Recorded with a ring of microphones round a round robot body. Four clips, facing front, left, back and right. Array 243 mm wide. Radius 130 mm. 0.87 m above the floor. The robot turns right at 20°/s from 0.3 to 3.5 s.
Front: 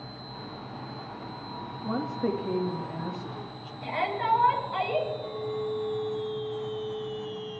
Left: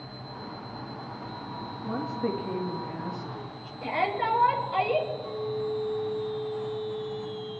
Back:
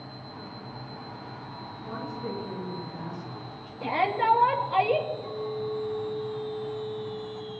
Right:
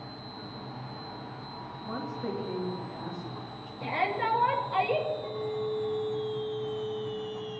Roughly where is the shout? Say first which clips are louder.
Left 2 dB, back 4 dB; behind.